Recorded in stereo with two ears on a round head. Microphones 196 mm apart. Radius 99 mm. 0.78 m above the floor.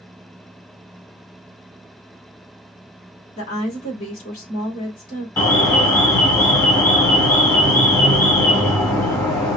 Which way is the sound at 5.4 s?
15° left (ahead or behind).